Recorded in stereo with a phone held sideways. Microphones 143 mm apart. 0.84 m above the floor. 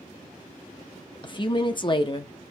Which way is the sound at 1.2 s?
35° left (ahead or behind).